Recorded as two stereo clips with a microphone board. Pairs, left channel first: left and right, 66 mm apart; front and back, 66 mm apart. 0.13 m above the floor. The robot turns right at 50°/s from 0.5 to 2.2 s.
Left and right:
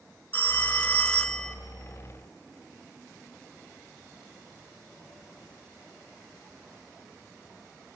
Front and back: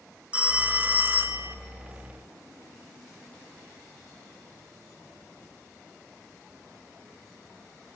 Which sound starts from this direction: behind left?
A phone ringing, at 0.3 s.